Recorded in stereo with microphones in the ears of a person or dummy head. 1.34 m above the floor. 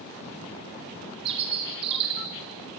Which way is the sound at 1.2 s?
25° right (ahead or behind).